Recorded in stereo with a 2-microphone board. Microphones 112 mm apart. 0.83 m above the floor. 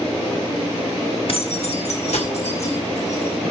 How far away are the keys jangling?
About 1.2 m.